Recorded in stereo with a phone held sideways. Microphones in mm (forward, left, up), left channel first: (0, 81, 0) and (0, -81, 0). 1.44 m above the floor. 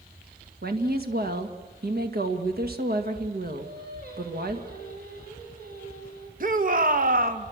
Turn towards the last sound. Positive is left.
turn(degrees=-55)  # may be behind; listen again after turning